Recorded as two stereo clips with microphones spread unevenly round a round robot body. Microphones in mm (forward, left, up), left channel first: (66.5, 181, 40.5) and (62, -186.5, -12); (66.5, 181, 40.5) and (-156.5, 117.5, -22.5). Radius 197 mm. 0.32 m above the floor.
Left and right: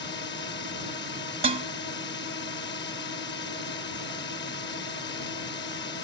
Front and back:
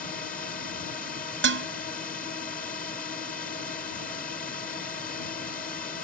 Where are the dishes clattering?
160° right.